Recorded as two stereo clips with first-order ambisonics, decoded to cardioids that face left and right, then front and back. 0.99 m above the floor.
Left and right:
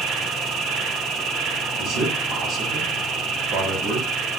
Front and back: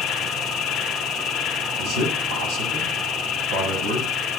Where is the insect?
50° right, 1.0 m.